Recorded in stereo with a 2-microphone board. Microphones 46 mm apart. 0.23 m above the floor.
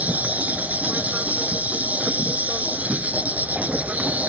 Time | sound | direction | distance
0.0 | an insect | 35° right (ahead or behind) | ?